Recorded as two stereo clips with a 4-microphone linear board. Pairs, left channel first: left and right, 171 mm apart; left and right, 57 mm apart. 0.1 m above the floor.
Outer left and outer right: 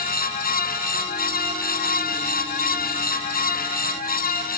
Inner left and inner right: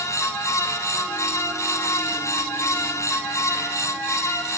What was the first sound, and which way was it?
Only background noise.